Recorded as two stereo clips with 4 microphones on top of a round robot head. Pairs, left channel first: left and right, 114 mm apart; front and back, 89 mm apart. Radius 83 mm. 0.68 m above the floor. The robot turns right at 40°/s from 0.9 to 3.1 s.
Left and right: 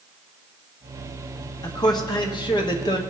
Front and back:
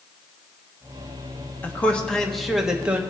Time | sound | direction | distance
1.6 | a man speaking | 55° left | 1.4 m